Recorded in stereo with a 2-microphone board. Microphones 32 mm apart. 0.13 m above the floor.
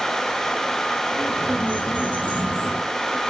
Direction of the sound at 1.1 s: 50° left (ahead or behind).